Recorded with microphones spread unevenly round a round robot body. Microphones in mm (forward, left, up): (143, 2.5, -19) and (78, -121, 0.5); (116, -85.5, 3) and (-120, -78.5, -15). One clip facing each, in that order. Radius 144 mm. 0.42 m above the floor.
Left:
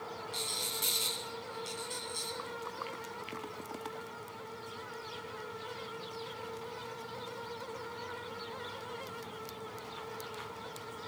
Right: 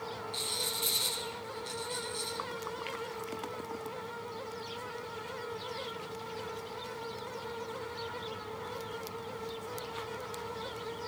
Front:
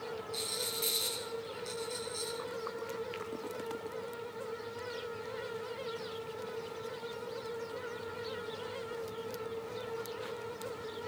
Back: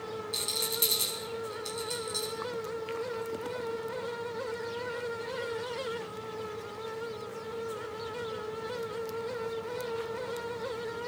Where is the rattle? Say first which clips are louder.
Right 2 dB, back 3 dB; 125° left, 3.5 m.